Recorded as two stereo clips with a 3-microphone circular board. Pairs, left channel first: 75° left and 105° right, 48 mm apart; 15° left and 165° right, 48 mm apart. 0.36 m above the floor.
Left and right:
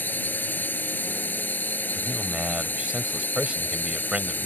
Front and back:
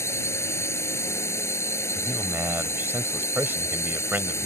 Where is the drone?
25° left.